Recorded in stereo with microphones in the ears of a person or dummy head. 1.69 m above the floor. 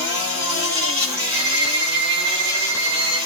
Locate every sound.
0.0 s an insect: 25° right (ahead or behind), 2 m
1.3 s a violin: 65° right (ahead or behind), 6.5 m